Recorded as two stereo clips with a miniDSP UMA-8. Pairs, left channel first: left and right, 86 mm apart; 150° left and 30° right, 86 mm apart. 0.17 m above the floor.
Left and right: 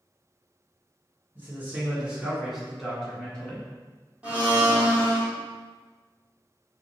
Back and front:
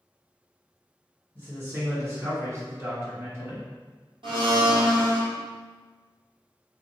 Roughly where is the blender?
Ahead.